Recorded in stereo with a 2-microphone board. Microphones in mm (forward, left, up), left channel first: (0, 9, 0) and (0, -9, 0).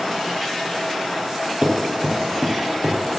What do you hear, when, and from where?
1.6 s running footsteps: 60° right (ahead or behind), 3.5 m; by 3.2 s 50° right (ahead or behind), 4 m